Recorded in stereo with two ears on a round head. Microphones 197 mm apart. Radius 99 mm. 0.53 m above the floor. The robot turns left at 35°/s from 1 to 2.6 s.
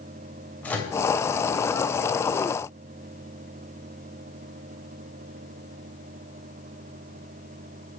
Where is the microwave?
10° left (ahead or behind), 2.5 m.